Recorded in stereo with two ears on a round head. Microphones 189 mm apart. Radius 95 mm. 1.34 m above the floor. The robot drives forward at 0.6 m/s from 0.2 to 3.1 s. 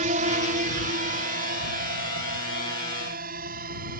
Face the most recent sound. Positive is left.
turn(degrees=-40)  # may be behind; listen again after turning